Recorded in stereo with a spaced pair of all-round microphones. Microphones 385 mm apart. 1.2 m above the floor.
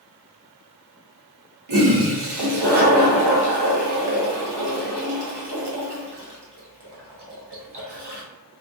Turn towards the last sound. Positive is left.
turn(degrees=-75)  # may be behind; listen again after turning